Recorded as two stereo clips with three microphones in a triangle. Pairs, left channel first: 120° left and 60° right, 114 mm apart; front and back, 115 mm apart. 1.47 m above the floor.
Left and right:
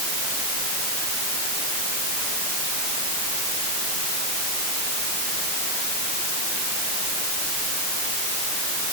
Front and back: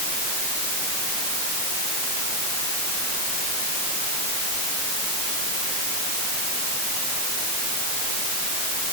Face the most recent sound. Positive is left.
No sound to turn to.